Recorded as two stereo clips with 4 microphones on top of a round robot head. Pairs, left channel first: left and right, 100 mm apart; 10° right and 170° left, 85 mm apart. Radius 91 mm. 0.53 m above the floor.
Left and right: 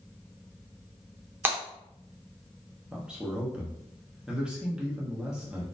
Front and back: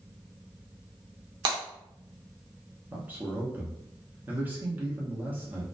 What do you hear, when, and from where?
1.4 s breaking glass: 160° right, 0.9 m
2.9 s a man speaking: 160° right, 0.7 m